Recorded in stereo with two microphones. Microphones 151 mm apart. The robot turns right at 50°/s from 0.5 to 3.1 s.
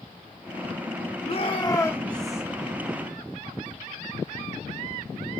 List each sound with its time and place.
1.2 s a shout: 125° left, 1.3 m; by 2.4 s 175° right, 1.3 m